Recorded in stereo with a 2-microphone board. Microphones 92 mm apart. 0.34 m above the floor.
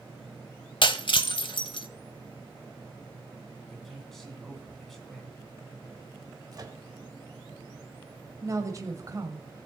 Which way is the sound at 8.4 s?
35° right (ahead or behind).